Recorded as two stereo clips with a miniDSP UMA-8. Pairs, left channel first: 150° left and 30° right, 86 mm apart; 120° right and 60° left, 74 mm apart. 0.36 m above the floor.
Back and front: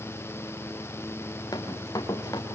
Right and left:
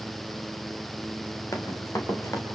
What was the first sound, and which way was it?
Running footsteps, 165° right.